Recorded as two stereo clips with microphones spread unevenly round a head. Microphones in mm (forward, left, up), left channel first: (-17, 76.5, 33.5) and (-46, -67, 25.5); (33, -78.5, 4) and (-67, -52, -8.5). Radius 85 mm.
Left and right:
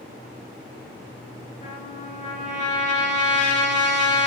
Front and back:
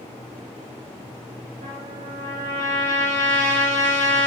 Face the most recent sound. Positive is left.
turn(degrees=125)